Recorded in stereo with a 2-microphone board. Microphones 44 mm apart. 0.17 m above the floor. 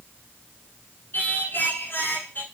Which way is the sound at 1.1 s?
50° left (ahead or behind).